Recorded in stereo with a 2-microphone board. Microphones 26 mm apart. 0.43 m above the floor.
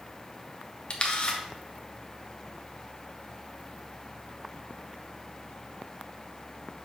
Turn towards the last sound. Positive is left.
turn(degrees=40)  # may be behind; listen again after turning